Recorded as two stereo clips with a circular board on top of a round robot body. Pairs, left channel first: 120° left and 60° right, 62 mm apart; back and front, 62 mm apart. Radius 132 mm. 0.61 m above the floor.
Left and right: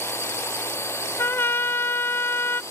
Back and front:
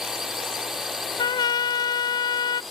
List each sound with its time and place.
0.0 s a drone: 85° left; by 2.7 s 90° left
1.2 s a trumpet: straight behind